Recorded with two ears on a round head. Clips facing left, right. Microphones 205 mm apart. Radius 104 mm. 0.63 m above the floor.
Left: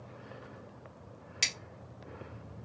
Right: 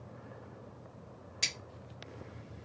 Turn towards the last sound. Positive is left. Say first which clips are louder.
# left 1 dB
turn(degrees=40)  # may be behind; listen again after turning